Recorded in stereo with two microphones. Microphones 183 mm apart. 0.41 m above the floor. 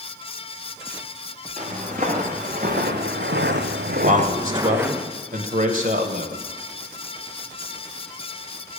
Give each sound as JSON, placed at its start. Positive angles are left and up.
{"t": 1.6, "sound": "footsteps", "side_deg": -45, "distance_m": 4.0}
{"t": 4.0, "sound": "a man speaking", "side_deg": -45, "distance_m": 2.0}